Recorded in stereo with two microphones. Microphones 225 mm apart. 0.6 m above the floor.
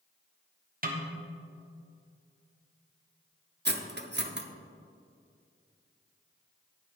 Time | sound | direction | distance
0.8 | a snare drum | 40° right (ahead or behind) | 1.2 m
3.6 | cutlery clinking | 50° right (ahead or behind) | 0.7 m